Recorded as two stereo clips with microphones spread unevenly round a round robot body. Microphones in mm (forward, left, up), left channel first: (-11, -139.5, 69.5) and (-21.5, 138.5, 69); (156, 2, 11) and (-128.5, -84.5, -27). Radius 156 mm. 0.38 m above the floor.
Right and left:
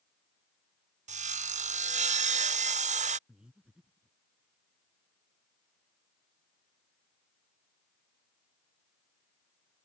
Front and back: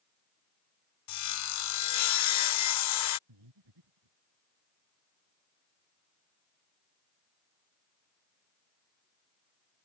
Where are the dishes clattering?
I don't hear dishes clattering.